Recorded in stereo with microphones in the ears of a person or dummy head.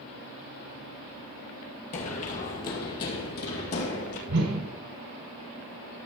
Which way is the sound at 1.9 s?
30° left (ahead or behind).